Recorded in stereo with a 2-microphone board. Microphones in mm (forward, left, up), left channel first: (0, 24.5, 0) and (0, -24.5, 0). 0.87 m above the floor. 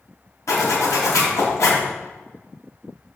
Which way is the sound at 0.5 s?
75° left (ahead or behind).